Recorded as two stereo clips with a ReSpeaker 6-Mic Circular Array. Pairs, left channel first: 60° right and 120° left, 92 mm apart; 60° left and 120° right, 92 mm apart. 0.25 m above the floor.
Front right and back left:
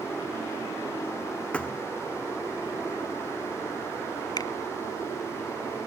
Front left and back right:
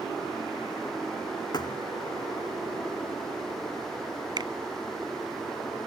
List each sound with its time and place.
1.5 s a thud: 20° left
4.4 s a finger snap: 95° right